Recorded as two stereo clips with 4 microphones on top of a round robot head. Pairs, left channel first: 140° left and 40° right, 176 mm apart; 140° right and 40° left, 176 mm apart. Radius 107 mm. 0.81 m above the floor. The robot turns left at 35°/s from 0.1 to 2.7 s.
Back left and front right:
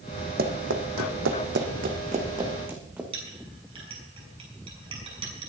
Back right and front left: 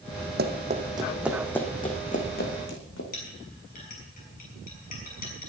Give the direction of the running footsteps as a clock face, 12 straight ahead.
12 o'clock.